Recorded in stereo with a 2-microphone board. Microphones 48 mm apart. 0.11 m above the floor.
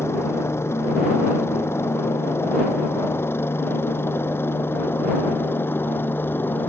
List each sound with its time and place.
0.0 s a helicopter: 60° left (ahead or behind); by 6.7 s 45° left (ahead or behind)